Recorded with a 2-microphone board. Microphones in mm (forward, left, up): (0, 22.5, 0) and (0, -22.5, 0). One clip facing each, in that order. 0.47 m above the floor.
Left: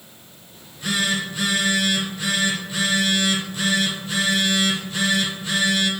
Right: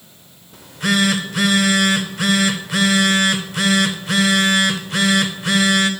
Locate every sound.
0.5 s a phone buzzing: 65° right (ahead or behind), 0.5 m